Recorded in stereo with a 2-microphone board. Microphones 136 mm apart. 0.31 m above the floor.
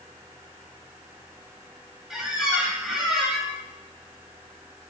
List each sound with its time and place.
2.1 s a squeak: 5° right (ahead or behind), 0.6 m